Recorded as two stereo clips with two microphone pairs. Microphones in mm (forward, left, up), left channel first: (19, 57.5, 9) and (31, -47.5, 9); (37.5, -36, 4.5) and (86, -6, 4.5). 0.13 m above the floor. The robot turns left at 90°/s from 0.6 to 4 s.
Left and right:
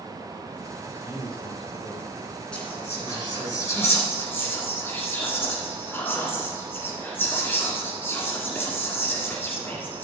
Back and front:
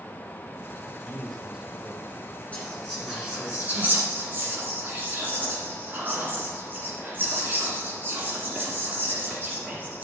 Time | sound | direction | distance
0.8 | a man speaking | straight behind | 4 m
2.5 | whispering | 170° left | 1.7 m